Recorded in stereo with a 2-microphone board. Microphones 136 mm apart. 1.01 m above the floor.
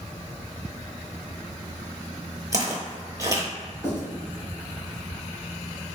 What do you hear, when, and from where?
2.5 s footsteps: 25° right (ahead or behind), 1.1 m
3.8 s writing: 20° left (ahead or behind), 1.7 m